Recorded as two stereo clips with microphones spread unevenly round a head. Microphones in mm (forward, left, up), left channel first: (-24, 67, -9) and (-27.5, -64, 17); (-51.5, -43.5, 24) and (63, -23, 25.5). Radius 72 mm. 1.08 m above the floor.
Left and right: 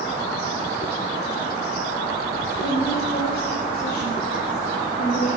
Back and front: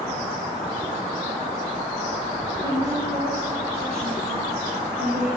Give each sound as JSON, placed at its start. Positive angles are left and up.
{"t": 2.6, "sound": "a woman speaking", "azimuth_deg": 75, "distance_m": 7.0}